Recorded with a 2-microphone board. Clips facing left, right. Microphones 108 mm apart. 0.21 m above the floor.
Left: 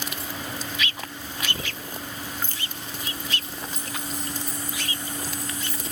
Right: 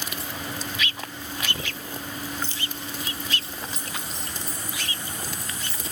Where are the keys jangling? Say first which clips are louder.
Right 1 dB; 50° left (ahead or behind), 4.5 m.